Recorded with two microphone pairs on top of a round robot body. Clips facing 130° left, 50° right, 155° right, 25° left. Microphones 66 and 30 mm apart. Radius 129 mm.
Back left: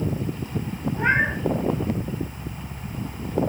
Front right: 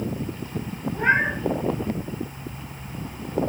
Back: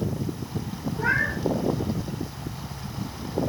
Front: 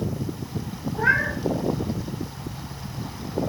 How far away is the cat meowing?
About 3.5 m.